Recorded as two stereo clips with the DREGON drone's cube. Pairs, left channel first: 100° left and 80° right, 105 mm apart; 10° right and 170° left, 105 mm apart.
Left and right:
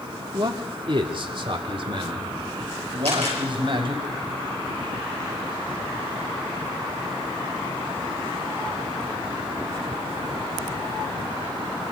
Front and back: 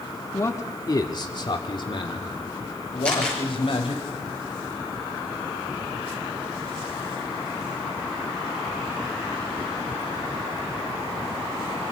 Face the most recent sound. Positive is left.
turn(degrees=-90)